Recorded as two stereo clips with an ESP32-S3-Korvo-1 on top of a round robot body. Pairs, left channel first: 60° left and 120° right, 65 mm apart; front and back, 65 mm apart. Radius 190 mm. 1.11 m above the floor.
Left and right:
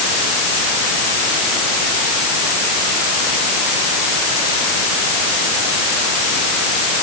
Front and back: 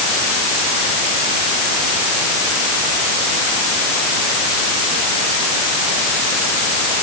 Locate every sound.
Only background noise.